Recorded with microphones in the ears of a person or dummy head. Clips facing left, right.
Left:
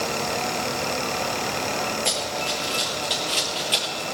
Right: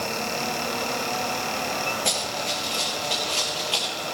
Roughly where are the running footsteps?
Centre.